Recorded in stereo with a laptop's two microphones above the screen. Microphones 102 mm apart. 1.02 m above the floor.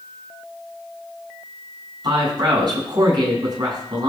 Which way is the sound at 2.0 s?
45° right (ahead or behind).